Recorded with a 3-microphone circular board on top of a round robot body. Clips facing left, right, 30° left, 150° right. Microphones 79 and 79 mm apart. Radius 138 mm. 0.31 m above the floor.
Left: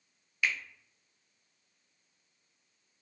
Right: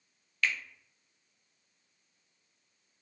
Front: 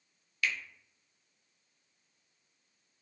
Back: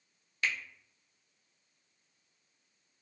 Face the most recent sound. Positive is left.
turn(degrees=165)